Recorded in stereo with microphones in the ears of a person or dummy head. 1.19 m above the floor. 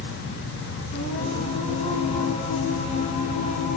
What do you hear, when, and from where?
0.9 s singing: 35° left (ahead or behind), 3 m